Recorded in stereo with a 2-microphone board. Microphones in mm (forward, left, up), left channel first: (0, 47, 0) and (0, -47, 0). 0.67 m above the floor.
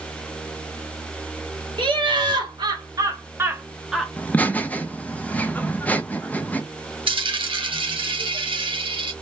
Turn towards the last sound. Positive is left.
turn(degrees=-65)  # may be behind; listen again after turning